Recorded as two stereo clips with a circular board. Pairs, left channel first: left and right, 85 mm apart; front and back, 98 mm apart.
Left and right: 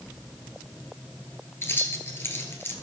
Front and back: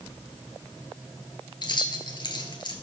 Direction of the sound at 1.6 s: 30° left.